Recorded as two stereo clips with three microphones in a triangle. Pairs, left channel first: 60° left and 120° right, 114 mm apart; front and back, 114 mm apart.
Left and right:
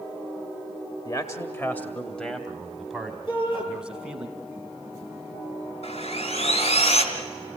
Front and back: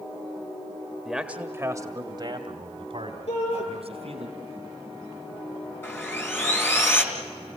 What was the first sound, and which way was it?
A man speaking, 90° left.